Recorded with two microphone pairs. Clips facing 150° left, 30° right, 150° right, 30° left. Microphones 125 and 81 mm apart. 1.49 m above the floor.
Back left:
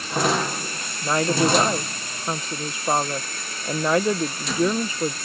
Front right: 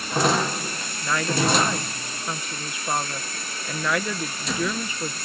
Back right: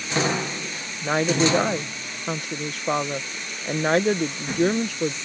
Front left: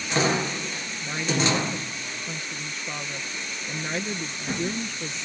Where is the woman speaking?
155° right.